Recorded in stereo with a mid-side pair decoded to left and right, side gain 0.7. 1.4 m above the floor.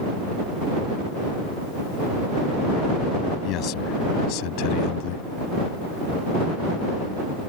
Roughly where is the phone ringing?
I don't hear a phone ringing.